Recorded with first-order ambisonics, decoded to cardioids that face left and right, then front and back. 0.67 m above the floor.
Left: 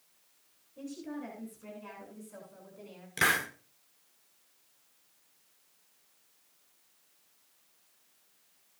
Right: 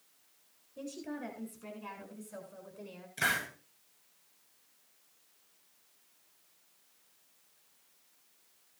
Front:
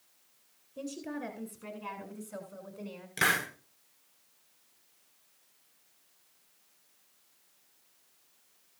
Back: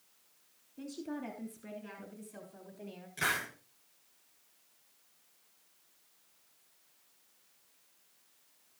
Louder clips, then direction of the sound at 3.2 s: Left 4 dB, front 5 dB; 55° left.